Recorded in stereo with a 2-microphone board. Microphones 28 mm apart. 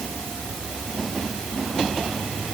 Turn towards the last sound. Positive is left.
No sound to turn to.